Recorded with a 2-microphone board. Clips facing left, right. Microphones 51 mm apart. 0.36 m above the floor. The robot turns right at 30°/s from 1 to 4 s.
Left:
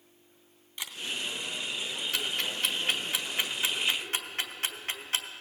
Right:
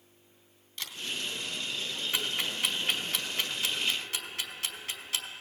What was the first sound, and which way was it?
A camera shutter, 20° left (ahead or behind).